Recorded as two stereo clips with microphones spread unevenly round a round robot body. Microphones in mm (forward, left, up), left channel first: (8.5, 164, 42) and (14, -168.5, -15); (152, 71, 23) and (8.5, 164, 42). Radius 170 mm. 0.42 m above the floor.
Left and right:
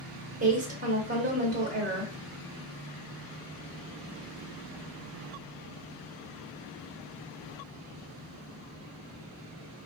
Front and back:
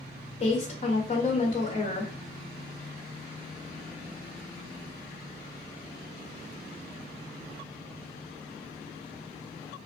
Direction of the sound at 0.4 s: 45° right.